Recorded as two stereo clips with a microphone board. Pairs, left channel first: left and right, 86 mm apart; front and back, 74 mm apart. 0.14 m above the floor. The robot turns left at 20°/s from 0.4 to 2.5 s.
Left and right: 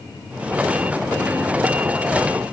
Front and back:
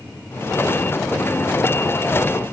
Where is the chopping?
No chopping in this recording.